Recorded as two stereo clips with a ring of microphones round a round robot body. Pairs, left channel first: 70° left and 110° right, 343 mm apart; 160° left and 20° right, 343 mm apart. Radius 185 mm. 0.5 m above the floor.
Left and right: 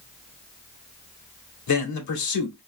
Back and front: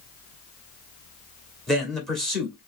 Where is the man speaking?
70° left, 1.5 m.